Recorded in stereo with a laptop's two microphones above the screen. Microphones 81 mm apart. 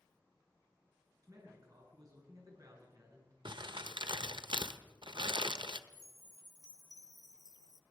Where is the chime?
55° left (ahead or behind), 0.9 m.